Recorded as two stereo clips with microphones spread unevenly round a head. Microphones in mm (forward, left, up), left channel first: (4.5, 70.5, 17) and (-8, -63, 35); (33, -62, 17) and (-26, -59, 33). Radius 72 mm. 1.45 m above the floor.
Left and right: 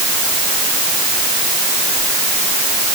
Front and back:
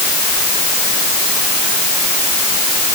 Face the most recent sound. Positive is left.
No sound to turn to.